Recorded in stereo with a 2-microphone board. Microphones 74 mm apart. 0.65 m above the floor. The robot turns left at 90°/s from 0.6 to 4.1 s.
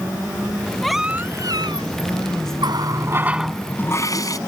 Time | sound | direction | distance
0.8 | a baby crying | 10° left | ?
2.6 | a running tap | 95° right | ?